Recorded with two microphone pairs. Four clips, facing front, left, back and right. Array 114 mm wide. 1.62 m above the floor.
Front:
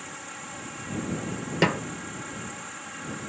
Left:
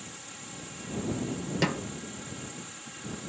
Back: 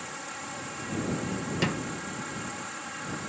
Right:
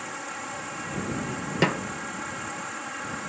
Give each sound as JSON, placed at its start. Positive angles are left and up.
{"t": 0.0, "sound": "an insect", "azimuth_deg": -100}
{"t": 1.6, "sound": "a snare drum", "azimuth_deg": -35}